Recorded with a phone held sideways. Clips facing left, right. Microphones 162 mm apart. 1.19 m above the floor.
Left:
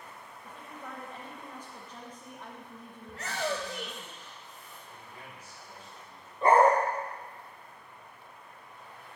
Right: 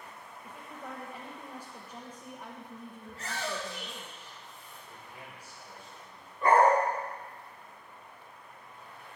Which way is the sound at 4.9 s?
10° right (ahead or behind).